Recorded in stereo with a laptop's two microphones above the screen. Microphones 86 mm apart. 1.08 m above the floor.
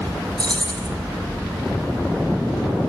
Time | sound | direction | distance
0.4 | keys jangling | 60° right (ahead or behind) | 5.5 m